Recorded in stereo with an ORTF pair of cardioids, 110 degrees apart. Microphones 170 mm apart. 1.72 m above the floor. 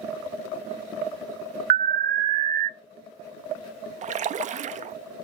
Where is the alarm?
55° right, 0.6 m.